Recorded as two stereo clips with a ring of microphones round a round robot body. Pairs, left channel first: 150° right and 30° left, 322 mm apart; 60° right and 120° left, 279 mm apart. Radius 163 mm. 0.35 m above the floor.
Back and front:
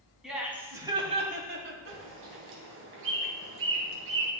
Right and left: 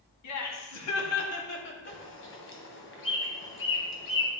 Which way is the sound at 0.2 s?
60° right.